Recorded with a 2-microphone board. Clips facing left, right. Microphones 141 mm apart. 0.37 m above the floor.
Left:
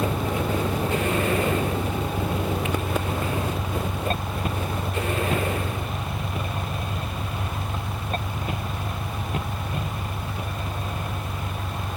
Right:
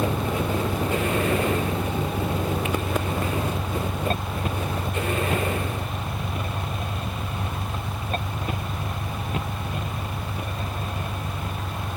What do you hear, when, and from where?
0.0 s an engine running: 5° right (ahead or behind)